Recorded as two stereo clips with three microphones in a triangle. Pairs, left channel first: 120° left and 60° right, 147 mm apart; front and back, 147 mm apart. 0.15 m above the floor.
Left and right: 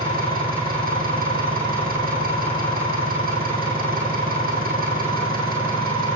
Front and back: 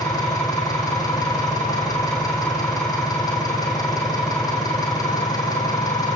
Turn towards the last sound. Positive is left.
turn(degrees=-65)